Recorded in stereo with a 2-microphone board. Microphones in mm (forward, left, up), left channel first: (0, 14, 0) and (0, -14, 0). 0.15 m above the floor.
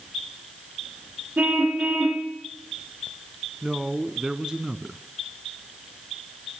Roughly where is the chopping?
I don't hear chopping.